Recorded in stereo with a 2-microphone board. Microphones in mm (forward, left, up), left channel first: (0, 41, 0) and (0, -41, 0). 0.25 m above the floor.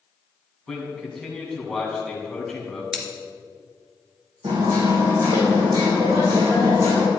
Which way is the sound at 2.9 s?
5° right (ahead or behind).